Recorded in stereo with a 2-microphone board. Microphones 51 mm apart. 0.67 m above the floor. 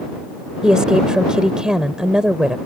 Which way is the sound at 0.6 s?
15° right (ahead or behind).